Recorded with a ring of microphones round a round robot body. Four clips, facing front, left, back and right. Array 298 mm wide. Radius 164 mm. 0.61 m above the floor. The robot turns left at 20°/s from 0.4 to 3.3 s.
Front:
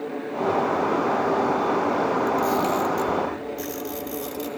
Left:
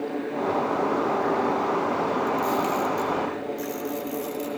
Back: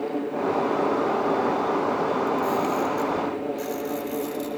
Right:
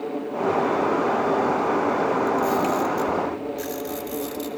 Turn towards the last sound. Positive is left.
turn(degrees=-35)